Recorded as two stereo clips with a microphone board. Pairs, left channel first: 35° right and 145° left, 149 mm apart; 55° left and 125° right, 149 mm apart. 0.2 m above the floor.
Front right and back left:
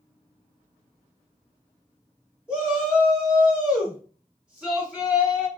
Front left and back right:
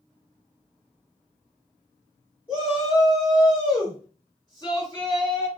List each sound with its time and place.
2.5 s a shout: 70° left, 1.5 m